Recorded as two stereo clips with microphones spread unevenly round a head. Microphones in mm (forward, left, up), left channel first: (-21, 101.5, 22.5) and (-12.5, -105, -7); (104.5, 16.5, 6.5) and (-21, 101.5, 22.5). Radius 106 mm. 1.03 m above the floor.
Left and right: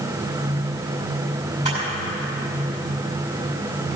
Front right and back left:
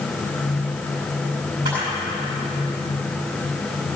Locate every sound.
1.6 s a camera shutter: 145° right, 6.5 m